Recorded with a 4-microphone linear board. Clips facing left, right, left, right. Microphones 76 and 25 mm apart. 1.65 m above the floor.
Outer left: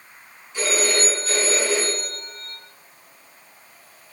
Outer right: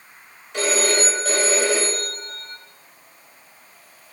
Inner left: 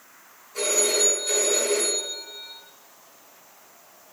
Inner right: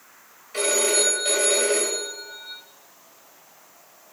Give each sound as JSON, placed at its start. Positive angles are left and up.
{"t": 0.5, "sound": "a phone ringing", "side_deg": -75, "distance_m": 5.5}